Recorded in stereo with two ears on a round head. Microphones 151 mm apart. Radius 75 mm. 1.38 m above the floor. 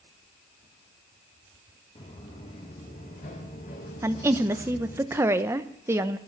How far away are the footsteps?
About 4 m.